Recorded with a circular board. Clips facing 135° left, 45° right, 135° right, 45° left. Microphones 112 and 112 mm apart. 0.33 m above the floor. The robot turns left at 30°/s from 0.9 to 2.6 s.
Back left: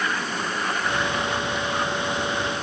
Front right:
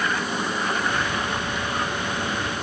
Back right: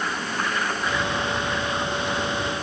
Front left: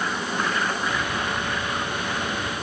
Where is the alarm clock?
No alarm clock in this recording.